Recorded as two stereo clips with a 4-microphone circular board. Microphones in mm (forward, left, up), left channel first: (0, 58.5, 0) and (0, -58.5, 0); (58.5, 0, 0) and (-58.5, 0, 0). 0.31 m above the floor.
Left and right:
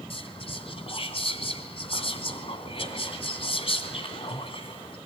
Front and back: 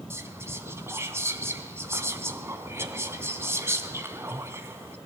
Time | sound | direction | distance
0.1 | whispering | 115° left | 2.5 m